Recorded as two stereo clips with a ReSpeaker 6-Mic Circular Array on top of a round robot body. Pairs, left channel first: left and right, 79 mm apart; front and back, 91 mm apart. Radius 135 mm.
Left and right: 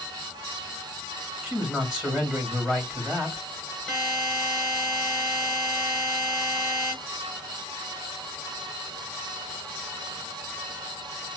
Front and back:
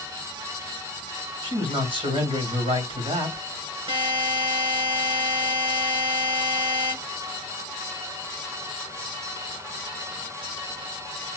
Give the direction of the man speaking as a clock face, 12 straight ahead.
6 o'clock.